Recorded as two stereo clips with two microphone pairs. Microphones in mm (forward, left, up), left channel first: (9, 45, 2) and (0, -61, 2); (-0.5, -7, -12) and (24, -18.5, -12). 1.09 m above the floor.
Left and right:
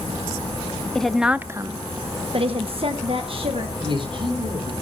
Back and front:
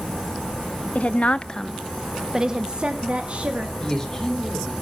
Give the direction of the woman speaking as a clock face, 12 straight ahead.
6 o'clock.